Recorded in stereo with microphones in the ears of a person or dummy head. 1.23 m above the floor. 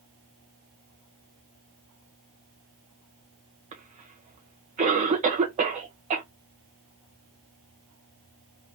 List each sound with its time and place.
3.7 s a cough: 30° right (ahead or behind), 1.0 m